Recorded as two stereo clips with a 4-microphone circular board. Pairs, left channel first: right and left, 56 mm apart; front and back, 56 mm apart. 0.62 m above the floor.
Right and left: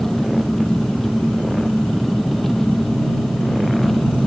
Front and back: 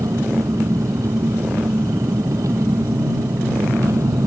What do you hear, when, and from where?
0.0 s an engine running: 175° right